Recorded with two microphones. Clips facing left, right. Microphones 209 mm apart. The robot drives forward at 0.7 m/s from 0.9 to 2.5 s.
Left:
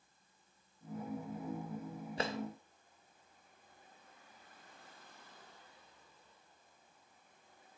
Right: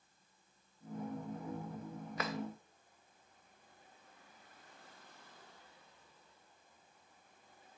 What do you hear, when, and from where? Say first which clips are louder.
2.2 s a drawer: left 2 dB; 30° left (ahead or behind), 0.8 m; by 2.4 s 25° left (ahead or behind), 0.9 m